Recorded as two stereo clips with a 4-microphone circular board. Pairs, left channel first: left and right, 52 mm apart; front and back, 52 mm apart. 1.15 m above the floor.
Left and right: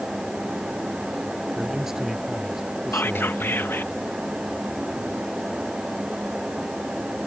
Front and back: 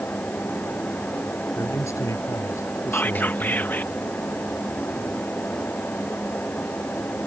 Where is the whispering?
50° left.